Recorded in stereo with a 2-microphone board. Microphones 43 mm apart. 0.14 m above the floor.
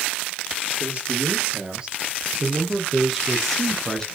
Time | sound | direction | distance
0.8 | a man speaking | 30° right (ahead or behind) | 4.5 m